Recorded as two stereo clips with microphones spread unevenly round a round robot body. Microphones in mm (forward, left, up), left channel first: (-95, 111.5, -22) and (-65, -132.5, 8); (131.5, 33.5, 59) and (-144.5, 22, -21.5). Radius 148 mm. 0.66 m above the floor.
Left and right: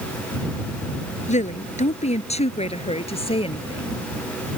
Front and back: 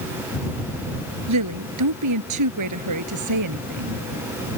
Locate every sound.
1.3 s a woman speaking: 160° left; by 4.0 s 165° left